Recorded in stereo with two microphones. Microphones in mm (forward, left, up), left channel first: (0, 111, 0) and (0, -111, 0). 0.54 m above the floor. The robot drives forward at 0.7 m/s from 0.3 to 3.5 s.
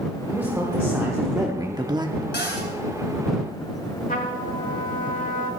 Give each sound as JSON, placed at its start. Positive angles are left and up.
{"t": 0.3, "sound": "a man speaking", "side_deg": -10, "distance_m": 1.4}
{"t": 2.3, "sound": "a cupboard door", "side_deg": 50, "distance_m": 3.0}
{"t": 4.1, "sound": "a trumpet", "side_deg": 40, "distance_m": 1.6}